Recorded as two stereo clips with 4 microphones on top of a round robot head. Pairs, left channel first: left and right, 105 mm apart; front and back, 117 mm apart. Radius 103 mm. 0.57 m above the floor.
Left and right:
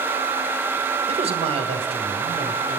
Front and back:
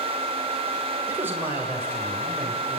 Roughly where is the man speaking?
Right.